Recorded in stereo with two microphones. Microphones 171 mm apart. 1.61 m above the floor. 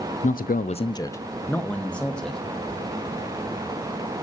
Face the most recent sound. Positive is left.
turn(degrees=5)  # may be behind; listen again after turning